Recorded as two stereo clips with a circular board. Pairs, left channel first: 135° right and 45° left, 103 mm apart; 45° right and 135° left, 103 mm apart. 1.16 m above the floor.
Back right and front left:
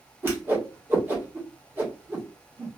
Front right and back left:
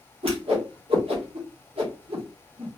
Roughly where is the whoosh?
Behind left.